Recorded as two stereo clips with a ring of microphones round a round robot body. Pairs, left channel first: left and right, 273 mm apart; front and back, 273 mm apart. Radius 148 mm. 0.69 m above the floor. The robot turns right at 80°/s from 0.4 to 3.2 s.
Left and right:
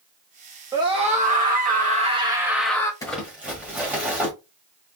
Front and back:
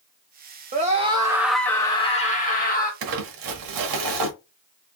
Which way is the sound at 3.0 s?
170° left.